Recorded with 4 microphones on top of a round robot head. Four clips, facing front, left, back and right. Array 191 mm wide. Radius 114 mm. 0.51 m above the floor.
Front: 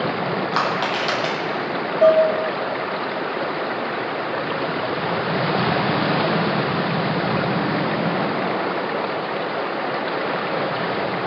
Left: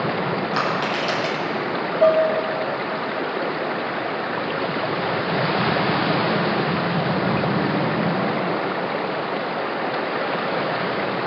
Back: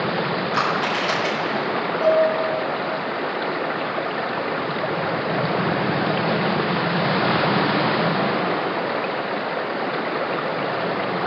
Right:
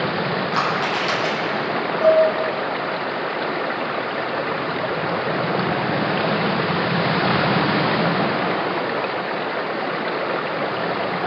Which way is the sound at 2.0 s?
45° left.